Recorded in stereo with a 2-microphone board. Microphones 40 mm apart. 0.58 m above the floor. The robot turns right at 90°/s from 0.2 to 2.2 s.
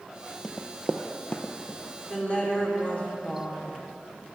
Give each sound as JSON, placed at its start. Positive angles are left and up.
{"t": 0.4, "sound": "running footsteps", "side_deg": 5, "distance_m": 0.7}
{"t": 2.1, "sound": "a woman speaking", "side_deg": 25, "distance_m": 1.7}